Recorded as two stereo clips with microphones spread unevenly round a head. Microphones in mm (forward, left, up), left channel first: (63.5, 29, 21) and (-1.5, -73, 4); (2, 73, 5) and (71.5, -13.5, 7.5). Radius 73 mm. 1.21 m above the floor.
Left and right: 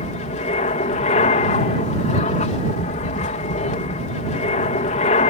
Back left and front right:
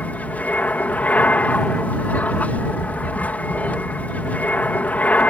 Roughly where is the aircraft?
Ahead left.